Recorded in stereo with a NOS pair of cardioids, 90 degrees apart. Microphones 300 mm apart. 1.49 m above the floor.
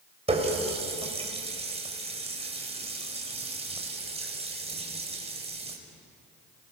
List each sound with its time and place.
0.3 s a running tap: 20° right, 4.5 m